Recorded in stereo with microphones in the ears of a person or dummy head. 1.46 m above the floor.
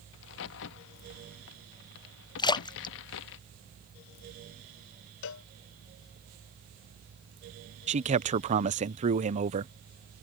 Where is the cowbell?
60° left (ahead or behind).